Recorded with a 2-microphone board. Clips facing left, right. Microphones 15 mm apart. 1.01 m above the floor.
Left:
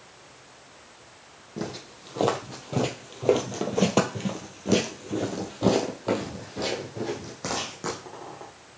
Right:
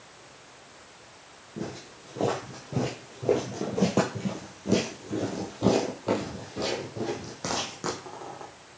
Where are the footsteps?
65° left (ahead or behind), 2.5 m; by 8.5 s 10° right (ahead or behind), 3 m.